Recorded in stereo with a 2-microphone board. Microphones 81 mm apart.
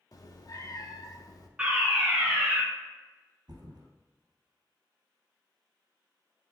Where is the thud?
55° right (ahead or behind), 1.8 m.